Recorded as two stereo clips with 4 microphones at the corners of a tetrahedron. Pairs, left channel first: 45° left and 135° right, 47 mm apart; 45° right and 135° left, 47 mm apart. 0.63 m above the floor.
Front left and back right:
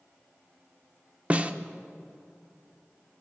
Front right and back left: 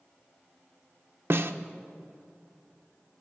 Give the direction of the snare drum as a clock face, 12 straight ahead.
7 o'clock.